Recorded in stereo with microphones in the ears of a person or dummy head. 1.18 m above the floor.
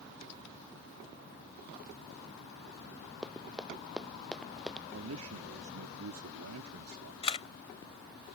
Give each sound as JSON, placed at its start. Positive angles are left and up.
{"t": 3.2, "sound": "running footsteps", "side_deg": -5}
{"t": 4.9, "sound": "a man speaking", "side_deg": -80}
{"t": 7.2, "sound": "a camera shutter", "side_deg": 35}